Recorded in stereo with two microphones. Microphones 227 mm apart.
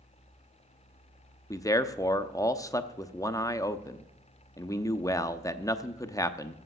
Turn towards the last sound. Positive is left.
turn(degrees=15)  # may be behind; listen again after turning